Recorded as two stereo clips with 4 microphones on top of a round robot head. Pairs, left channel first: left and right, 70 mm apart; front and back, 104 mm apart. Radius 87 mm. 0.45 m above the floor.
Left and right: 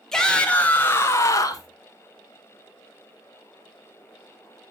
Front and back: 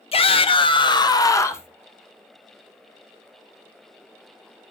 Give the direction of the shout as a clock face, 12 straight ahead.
12 o'clock.